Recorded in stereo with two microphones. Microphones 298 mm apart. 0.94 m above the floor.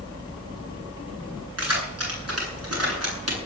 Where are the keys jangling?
55° right (ahead or behind), 10 m.